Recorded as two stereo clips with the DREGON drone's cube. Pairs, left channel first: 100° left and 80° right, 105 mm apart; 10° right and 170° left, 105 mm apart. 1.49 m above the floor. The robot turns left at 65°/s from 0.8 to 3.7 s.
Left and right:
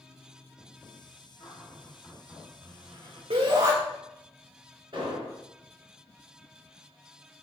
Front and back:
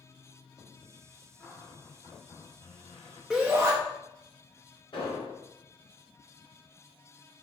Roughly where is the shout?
Right.